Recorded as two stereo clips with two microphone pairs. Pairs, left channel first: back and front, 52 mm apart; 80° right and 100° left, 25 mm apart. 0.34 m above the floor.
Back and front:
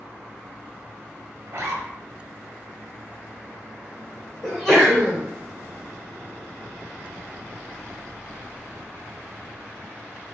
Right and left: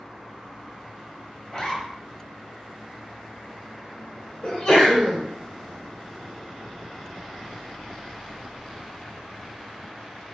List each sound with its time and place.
1.5 s a zipper: 15° right, 0.7 m
4.4 s a sneeze: 95° right, 1.5 m